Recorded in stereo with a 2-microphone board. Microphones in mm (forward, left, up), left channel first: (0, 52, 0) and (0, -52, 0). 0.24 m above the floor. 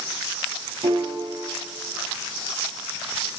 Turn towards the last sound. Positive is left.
turn(degrees=-75)  # may be behind; listen again after turning